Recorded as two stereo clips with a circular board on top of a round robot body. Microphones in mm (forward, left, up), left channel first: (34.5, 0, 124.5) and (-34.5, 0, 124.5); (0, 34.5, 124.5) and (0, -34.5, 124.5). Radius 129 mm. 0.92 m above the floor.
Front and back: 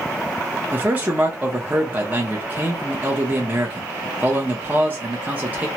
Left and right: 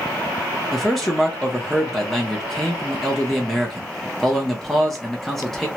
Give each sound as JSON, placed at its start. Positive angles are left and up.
{"t": 0.7, "sound": "a man speaking", "azimuth_deg": 175, "distance_m": 0.9}